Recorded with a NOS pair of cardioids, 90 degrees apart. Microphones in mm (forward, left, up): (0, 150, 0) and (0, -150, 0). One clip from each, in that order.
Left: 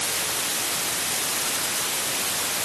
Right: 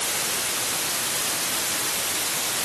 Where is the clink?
I don't hear a clink.